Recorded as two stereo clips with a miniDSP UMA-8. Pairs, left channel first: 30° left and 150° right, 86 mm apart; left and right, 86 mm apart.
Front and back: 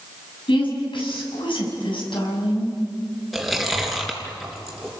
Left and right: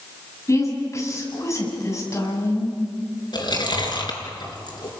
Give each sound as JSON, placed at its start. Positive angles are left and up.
{"t": 0.5, "sound": "a woman speaking", "azimuth_deg": 35, "distance_m": 6.5}
{"t": 3.3, "sound": "chewing", "azimuth_deg": 120, "distance_m": 3.5}